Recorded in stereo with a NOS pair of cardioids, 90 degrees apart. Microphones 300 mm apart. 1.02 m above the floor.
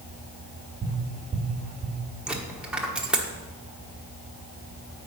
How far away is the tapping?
About 1.6 m.